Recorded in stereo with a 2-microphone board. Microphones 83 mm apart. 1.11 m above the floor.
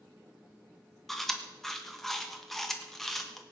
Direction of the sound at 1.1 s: 5° left (ahead or behind).